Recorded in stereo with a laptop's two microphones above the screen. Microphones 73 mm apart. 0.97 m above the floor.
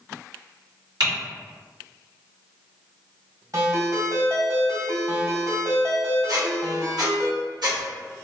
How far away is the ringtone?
About 2.0 m.